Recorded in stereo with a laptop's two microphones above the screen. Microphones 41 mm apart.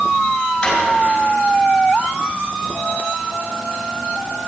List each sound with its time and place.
0.6 s a drawer: 25° left (ahead or behind), 5 m